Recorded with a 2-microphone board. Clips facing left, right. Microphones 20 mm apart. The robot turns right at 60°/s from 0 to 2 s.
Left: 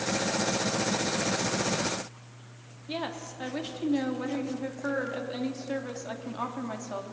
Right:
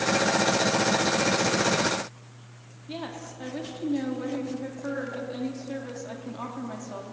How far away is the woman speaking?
About 3 m.